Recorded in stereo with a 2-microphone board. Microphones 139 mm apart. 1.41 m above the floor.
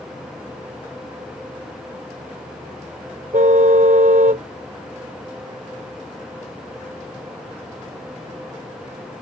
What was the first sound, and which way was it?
A car horn, 70° right (ahead or behind).